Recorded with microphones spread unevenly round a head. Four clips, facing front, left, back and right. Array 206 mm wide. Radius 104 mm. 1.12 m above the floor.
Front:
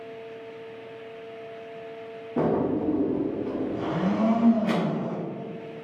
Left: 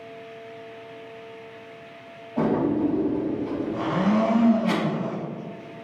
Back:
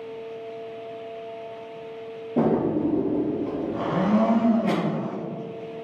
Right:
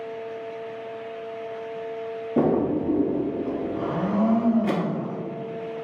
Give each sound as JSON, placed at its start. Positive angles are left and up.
{"t": 2.4, "sound": "a drawer", "azimuth_deg": -115, "distance_m": 1.0}
{"t": 3.7, "sound": "a blender", "azimuth_deg": 140, "distance_m": 0.8}